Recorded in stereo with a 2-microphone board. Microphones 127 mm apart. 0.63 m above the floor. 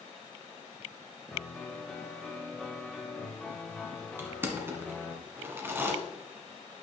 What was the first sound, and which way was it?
A piano, 5° left (ahead or behind).